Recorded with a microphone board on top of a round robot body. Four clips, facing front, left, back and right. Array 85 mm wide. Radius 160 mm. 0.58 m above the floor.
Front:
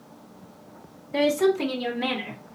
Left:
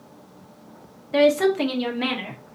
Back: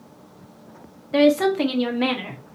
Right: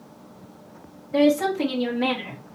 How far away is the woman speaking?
About 1.2 m.